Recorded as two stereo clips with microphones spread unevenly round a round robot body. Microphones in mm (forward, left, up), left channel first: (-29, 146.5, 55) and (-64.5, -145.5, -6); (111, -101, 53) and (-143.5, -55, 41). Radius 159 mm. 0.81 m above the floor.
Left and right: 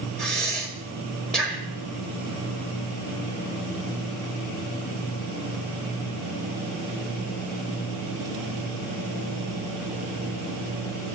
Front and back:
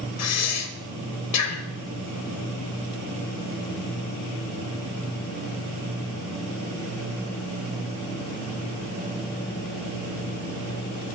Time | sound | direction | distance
0.2 | breathing | 10° right | 1.7 m